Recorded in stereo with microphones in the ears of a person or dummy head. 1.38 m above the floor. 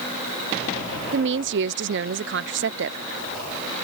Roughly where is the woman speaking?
Right.